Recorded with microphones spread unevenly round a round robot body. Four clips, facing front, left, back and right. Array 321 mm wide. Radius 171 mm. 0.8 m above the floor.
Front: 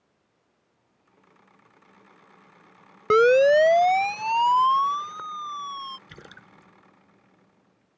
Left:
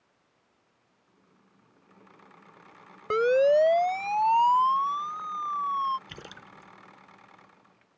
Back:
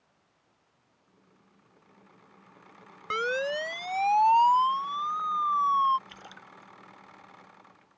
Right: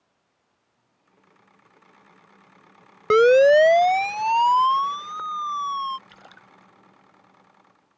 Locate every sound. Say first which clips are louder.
3.1 s a siren: right 8 dB, front 14 dB; 35° right; by 6.0 s 20° right
6.1 s a splash: left 3 dB, front 1 dB; 45° left